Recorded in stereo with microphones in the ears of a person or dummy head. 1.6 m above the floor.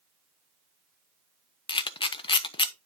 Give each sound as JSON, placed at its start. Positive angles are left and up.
{"t": 1.7, "sound": "a camera shutter", "side_deg": 25, "distance_m": 0.5}